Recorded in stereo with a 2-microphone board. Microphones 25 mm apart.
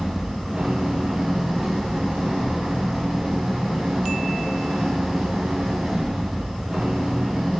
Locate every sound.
0.0 s an engine running: 30° right (ahead or behind), 9 m